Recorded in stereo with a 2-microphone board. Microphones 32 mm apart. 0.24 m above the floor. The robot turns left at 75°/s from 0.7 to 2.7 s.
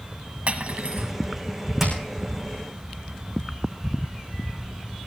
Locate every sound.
0.5 s cutlery clinking: 75° right, 1.1 m; by 1.1 s 110° right, 1.1 m
1.8 s hammering: 5° right (ahead or behind), 8 m; by 1.9 s 15° right (ahead or behind), 8 m